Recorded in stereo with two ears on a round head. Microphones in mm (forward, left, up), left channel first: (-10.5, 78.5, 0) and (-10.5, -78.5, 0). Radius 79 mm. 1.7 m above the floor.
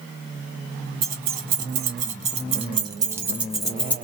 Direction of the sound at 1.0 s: 50° right (ahead or behind).